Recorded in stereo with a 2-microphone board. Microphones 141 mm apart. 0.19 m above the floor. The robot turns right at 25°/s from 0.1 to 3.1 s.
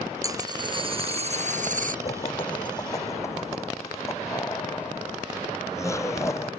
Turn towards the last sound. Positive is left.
turn(degrees=20)  # may be behind; listen again after turning